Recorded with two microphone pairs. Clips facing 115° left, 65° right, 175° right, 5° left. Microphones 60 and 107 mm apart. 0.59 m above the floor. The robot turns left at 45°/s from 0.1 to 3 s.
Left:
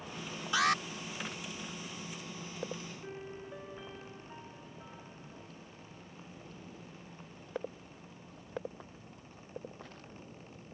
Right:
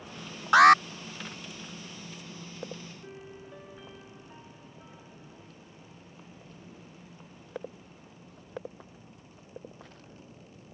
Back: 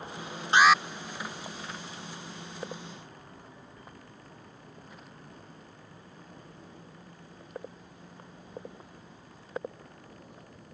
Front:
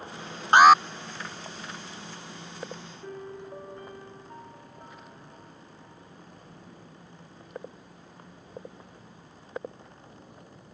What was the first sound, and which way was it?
An alarm, 35° right.